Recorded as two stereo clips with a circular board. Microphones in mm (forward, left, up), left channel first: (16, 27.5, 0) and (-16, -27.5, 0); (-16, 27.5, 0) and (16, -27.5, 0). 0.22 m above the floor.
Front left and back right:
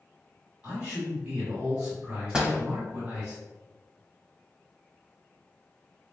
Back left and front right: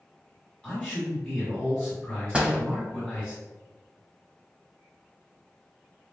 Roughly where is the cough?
I don't hear a cough.